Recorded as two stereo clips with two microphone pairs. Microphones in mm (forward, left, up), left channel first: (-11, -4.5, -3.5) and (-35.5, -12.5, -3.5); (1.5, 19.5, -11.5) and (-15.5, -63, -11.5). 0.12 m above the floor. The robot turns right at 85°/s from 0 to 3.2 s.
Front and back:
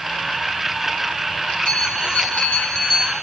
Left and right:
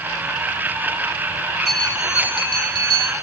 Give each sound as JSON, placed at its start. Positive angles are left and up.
{"t": 1.6, "sound": "a bell", "azimuth_deg": -10, "distance_m": 2.5}